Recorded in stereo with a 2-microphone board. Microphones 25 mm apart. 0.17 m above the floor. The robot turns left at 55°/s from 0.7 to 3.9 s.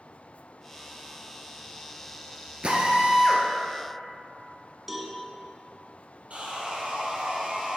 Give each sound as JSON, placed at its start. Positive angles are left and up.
{"t": 2.6, "sound": "a drill", "azimuth_deg": -125, "distance_m": 1.2}
{"t": 4.9, "sound": "a cowbell", "side_deg": -10, "distance_m": 0.9}
{"t": 6.3, "sound": "sawing", "side_deg": -60, "distance_m": 1.6}